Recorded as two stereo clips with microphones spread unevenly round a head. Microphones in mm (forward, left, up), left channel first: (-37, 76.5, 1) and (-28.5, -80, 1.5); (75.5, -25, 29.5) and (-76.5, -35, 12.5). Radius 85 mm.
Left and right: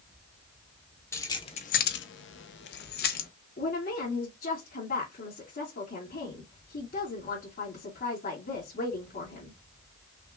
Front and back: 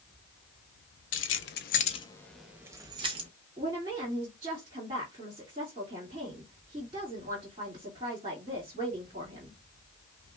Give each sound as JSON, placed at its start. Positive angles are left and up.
{"t": 1.1, "sound": "keys jangling", "azimuth_deg": 20, "distance_m": 0.7}
{"t": 3.6, "sound": "a woman speaking", "azimuth_deg": 125, "distance_m": 2.5}